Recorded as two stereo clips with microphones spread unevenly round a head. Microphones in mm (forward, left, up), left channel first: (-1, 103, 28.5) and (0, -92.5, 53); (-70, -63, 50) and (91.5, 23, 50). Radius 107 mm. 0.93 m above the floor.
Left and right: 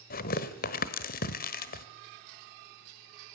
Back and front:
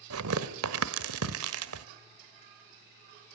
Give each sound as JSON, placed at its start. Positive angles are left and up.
{"t": 0.1, "sound": "tearing paper", "azimuth_deg": 40, "distance_m": 1.4}